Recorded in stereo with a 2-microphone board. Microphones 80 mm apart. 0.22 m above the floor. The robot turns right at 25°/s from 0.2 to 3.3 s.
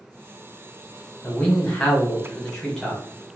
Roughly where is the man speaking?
Centre.